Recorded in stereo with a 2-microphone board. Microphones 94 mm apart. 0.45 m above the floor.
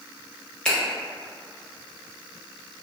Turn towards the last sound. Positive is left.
turn(degrees=10)  # may be behind; listen again after turning